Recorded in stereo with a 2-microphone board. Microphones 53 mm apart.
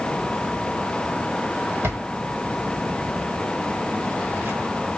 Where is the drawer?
60° right (ahead or behind), 1.9 m.